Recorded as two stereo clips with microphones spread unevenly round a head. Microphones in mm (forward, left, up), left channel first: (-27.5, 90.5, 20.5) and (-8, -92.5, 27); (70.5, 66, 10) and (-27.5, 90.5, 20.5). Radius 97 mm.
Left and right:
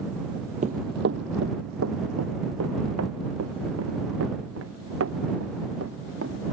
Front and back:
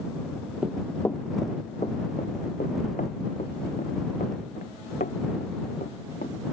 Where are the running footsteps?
120° right; by 6.3 s 55° right.